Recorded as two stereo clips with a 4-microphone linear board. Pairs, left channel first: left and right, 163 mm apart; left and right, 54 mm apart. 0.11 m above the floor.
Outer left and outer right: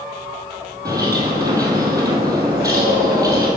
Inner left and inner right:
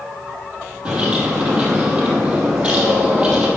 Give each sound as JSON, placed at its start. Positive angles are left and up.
{"t": 0.8, "sound": "a bird", "side_deg": -20, "distance_m": 2.0}